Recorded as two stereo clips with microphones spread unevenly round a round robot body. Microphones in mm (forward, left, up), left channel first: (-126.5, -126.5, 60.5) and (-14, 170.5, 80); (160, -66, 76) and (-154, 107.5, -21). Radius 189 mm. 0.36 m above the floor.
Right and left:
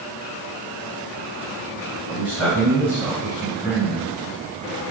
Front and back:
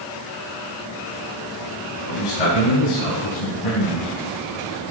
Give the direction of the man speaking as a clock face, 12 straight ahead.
1 o'clock.